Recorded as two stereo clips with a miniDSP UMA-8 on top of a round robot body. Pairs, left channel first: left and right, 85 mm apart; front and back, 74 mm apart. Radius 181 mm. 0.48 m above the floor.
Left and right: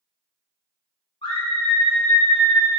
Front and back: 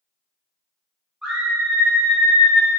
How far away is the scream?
About 2.5 m.